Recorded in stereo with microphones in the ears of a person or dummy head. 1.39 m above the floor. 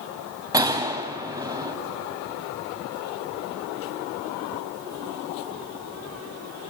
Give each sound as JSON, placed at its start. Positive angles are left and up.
{"t": 0.5, "sound": "a gunshot", "side_deg": -20, "distance_m": 2.0}